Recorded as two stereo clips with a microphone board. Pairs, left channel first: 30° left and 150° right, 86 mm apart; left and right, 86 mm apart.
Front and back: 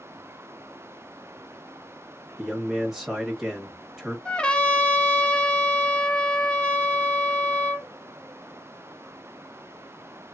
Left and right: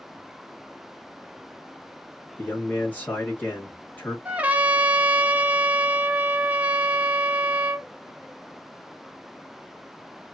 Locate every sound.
2.4 s a man speaking: 135° left, 0.9 m
4.2 s a trumpet: 35° right, 0.6 m